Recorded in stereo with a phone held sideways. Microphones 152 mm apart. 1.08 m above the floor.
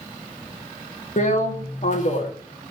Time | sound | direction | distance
1.2 | a drill | 55° left (ahead or behind) | 1.9 m